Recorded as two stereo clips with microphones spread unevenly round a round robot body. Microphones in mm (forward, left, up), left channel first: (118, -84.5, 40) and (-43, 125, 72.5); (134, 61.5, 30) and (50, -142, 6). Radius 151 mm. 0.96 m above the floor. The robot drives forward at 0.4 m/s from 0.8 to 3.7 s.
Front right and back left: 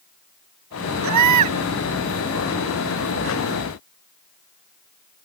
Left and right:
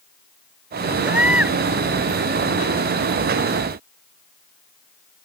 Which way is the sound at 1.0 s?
160° left.